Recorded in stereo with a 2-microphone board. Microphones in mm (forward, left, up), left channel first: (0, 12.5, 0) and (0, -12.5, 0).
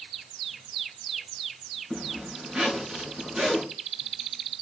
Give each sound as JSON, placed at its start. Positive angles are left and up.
{"t": 1.9, "sound": "a zipper", "side_deg": -35, "distance_m": 5.5}